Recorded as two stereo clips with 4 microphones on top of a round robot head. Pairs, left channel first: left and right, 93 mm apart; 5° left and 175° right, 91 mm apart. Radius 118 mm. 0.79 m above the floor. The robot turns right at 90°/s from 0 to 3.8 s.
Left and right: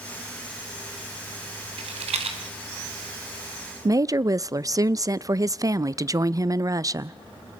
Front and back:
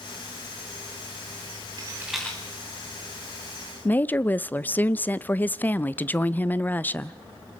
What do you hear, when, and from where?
1.8 s a rattle: 125° right, 1.7 m; by 2.4 s 70° right, 1.7 m
3.9 s a woman speaking: 60° right, 0.5 m